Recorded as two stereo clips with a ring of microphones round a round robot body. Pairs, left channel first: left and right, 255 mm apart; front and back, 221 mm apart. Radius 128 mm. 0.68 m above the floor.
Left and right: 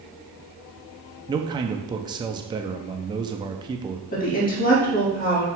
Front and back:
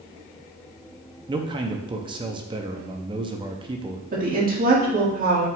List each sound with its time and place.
1.3 s a man speaking: 140° right, 0.6 m
4.1 s a woman speaking: 140° left, 1.6 m